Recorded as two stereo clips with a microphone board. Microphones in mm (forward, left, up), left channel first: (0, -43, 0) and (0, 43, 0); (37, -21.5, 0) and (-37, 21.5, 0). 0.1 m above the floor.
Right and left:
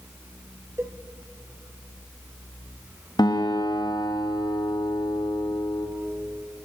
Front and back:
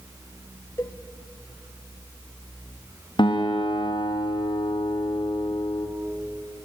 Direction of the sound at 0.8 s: 30° left.